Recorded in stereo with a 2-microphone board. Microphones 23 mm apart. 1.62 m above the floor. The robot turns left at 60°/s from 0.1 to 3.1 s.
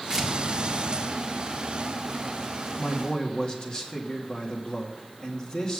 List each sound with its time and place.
0.1 s tearing paper: 30° right (ahead or behind), 2.5 m; by 0.3 s 20° right (ahead or behind), 2.5 m
2.8 s a man speaking: 60° left (ahead or behind), 2.5 m; by 5.8 s 45° left (ahead or behind), 2.5 m